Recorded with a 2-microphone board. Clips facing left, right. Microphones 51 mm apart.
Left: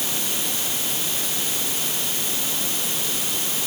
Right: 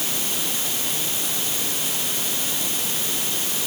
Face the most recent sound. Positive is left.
No sound to turn to.